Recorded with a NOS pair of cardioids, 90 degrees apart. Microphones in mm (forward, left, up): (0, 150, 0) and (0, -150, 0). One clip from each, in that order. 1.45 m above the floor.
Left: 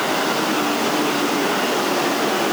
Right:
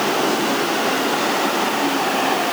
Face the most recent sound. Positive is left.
No sound to turn to.